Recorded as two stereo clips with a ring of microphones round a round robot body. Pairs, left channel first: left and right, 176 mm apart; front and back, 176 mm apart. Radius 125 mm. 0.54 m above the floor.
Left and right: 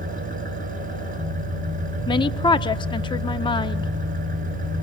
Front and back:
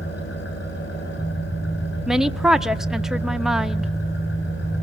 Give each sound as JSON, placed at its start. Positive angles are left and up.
{"t": 0.0, "sound": "an engine running", "azimuth_deg": -50, "distance_m": 6.5}
{"t": 2.1, "sound": "a woman speaking", "azimuth_deg": 95, "distance_m": 0.7}